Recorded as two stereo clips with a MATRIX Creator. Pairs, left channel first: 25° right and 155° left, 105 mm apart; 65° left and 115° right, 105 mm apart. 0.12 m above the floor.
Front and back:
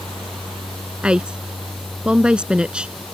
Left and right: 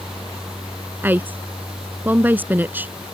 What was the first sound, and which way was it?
A woman speaking, 140° right.